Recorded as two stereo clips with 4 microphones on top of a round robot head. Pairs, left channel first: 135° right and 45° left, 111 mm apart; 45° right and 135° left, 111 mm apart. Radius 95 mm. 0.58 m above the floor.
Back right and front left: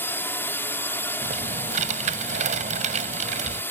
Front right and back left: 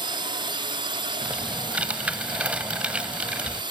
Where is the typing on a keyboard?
55° left.